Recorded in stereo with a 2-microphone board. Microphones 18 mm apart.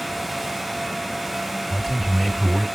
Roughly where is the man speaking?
Centre.